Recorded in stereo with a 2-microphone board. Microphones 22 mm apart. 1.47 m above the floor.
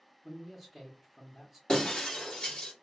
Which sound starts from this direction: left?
Breaking glass, at 1.7 s.